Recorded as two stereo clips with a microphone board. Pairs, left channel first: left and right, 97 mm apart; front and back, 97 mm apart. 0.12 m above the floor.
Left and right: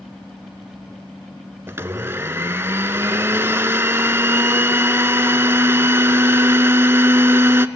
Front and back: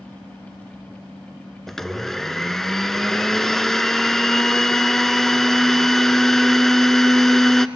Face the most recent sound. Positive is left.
turn(degrees=-85)